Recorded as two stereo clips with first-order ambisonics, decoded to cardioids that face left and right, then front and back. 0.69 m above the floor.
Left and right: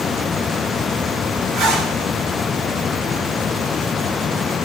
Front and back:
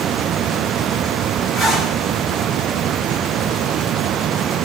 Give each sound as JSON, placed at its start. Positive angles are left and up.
{"t": 1.5, "sound": "a zipper", "azimuth_deg": -80, "distance_m": 4.5}